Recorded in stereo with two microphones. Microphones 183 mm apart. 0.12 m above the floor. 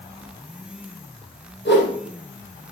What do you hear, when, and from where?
1.6 s a whoosh: 70° left (ahead or behind), 4 m